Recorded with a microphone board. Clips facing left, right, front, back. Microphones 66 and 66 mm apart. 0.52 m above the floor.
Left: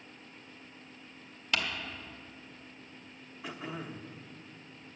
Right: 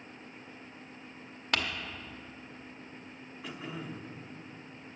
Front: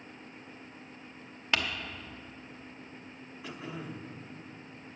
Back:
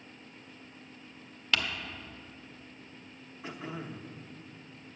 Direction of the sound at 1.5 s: 65° right.